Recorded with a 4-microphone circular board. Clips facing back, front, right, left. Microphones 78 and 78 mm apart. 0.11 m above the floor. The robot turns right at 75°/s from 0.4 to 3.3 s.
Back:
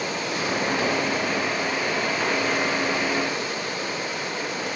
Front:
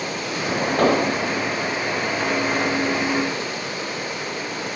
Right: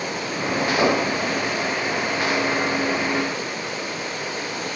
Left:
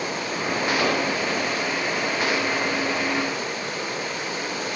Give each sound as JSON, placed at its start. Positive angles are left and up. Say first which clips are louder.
{"t": 0.8, "sound": "an explosion", "louder": "front 6 dB, right 3 dB", "azimuth_deg": -25}